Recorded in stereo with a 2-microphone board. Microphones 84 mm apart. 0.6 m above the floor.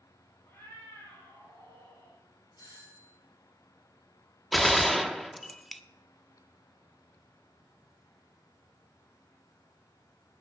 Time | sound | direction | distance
0.5 | a cat meowing | 35° left (ahead or behind) | 8 m
2.6 | a doorbell | 55° left (ahead or behind) | 4 m
4.5 | a gunshot | centre (ahead or behind) | 0.6 m